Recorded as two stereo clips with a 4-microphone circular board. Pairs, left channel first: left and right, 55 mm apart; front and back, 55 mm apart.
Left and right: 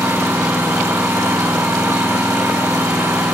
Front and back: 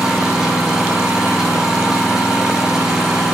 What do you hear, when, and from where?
0.0 s an engine running: 100° right, 5 m